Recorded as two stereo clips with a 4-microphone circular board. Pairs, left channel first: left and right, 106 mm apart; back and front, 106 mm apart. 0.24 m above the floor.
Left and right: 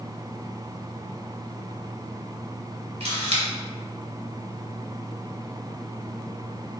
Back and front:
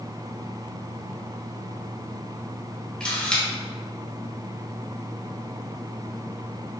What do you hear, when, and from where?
3.0 s a camera shutter: 100° right, 1.1 m